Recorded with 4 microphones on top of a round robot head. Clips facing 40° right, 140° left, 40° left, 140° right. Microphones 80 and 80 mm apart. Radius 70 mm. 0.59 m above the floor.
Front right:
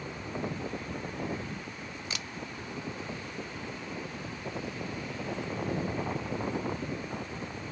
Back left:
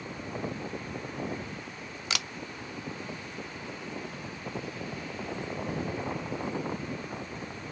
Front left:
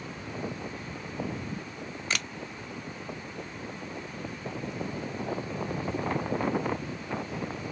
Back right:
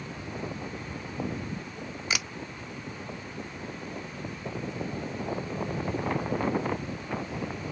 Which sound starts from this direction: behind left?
A camera shutter, at 2.1 s.